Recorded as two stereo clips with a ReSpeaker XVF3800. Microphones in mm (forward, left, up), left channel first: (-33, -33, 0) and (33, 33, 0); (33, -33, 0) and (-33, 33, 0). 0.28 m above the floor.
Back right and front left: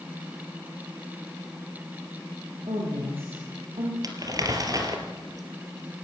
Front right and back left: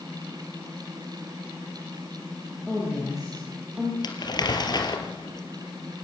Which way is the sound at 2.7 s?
55° left.